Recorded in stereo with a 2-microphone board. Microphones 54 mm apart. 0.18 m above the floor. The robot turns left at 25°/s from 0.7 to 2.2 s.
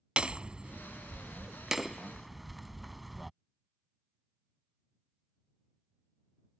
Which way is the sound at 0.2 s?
20° right (ahead or behind).